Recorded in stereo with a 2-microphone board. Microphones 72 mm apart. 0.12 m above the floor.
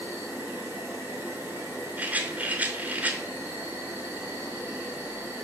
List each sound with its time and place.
0.0 s an insect: 30° right (ahead or behind), 1.6 m
2.0 s a rattle: 25° right (ahead or behind), 0.7 m